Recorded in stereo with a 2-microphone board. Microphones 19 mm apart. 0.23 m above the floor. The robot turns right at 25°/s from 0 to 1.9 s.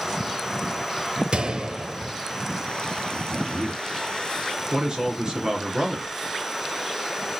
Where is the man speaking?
50° right (ahead or behind), 3 m.